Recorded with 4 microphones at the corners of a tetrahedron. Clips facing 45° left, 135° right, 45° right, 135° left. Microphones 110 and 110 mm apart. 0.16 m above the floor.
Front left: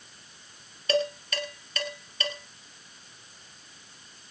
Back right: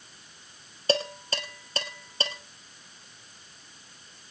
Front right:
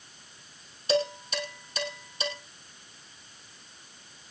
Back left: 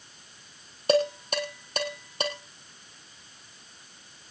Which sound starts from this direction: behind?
Dishes clattering, at 0.9 s.